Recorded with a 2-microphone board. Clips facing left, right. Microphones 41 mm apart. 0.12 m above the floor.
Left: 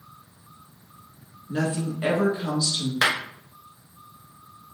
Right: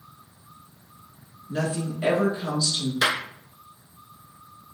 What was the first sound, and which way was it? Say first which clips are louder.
A woman speaking: left 1 dB; 15° left (ahead or behind).